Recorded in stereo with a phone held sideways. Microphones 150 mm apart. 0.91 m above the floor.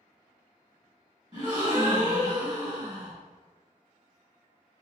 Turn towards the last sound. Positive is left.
turn(degrees=-25)  # may be behind; listen again after turning